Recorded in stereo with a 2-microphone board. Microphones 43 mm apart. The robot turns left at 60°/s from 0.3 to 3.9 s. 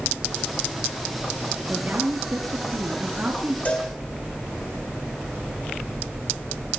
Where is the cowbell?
35° left (ahead or behind), 3.5 m; by 3.9 s 20° left (ahead or behind), 3.5 m.